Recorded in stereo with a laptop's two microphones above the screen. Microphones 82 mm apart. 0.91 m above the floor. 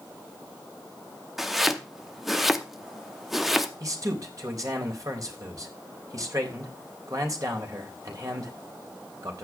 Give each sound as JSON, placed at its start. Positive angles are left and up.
{"t": 1.4, "sound": "chopping", "side_deg": 0, "distance_m": 0.7}
{"t": 3.8, "sound": "a man speaking", "side_deg": -45, "distance_m": 3.5}